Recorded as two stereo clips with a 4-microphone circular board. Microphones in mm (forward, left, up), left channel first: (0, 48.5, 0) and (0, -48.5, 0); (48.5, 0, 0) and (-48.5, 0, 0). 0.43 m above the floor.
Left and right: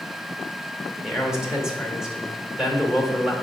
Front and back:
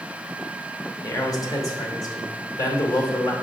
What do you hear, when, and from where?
1.0 s a man speaking: 10° right, 0.8 m